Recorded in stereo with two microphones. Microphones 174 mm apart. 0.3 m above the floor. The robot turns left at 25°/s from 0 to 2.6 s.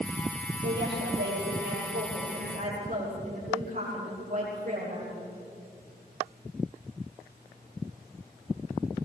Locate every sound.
0.6 s a woman speaking: 85° right, 7.5 m; by 5.2 s 135° right, 7.5 m